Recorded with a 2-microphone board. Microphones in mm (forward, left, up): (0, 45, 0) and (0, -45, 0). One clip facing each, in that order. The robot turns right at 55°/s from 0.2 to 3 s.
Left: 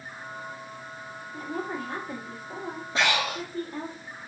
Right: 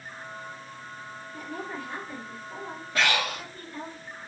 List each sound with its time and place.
1.3 s a woman speaking: 35° left, 1.5 m; by 4.0 s 125° left, 1.5 m
3.0 s breathing: 20° left (ahead or behind), 0.9 m